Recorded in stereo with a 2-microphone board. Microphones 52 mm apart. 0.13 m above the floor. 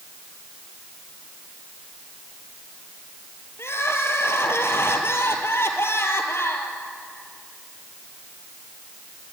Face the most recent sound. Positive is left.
turn(degrees=55)  # may be behind; listen again after turning